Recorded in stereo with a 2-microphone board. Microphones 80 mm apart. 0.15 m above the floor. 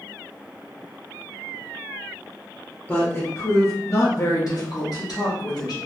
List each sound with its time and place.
2.9 s a woman speaking: 25° left (ahead or behind), 1.6 m; by 5.8 s 65° left (ahead or behind), 2 m